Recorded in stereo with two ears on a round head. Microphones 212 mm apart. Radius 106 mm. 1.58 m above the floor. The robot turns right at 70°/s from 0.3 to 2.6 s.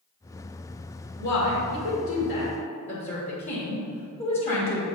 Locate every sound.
1.2 s a woman speaking: 50° left (ahead or behind), 2.0 m; by 4.9 s 25° left (ahead or behind), 2.0 m